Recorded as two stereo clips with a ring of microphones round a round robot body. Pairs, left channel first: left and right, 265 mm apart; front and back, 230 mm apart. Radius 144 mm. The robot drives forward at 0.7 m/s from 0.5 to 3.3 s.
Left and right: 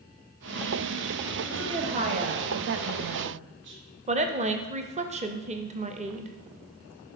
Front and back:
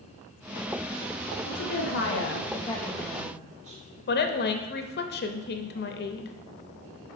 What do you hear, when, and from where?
1.5 s a woman speaking: 20° right, 1.1 m; by 3.8 s 125° right, 0.5 m
4.1 s a woman speaking: 30° right, 0.6 m